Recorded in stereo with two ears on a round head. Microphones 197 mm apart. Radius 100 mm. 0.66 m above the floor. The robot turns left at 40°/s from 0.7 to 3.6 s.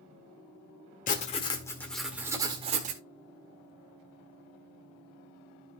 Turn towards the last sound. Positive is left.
turn(degrees=-65)